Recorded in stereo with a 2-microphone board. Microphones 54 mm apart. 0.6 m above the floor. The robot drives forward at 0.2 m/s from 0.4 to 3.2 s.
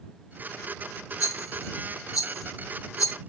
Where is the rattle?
65° left (ahead or behind), 0.6 m; by 3.1 s 70° left (ahead or behind), 0.6 m.